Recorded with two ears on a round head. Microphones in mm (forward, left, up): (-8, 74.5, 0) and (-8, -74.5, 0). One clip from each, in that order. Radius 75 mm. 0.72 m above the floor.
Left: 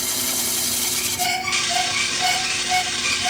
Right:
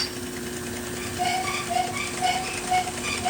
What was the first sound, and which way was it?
A squeak, 45° left (ahead or behind).